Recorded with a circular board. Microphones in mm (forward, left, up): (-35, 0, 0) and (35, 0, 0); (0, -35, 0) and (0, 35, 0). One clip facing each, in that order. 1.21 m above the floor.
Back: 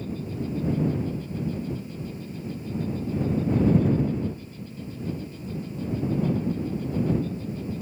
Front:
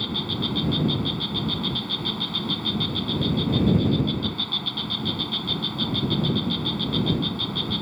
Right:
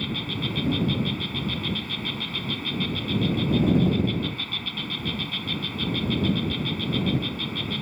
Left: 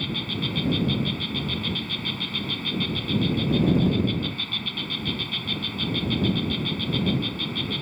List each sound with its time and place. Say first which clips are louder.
0.0 s an insect: front 3 dB, even; 5° right